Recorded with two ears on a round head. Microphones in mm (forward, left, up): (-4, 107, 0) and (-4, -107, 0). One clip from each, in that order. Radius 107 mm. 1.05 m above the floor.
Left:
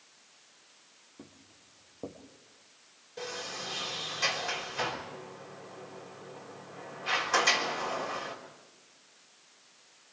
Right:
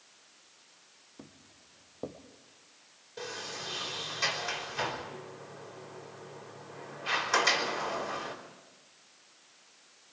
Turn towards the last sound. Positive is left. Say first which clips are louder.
# left 1 dB
turn(degrees=-10)  # may be behind; listen again after turning